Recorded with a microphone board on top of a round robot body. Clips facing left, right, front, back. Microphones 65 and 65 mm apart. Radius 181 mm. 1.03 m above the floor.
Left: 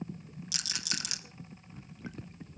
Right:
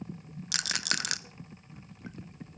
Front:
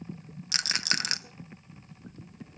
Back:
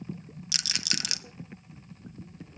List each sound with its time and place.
0.5 s a rattle: 55° right, 0.7 m